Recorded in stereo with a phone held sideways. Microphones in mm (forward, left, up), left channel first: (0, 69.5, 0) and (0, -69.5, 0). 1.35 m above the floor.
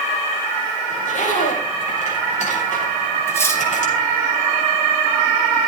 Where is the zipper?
65° left (ahead or behind), 5.5 m.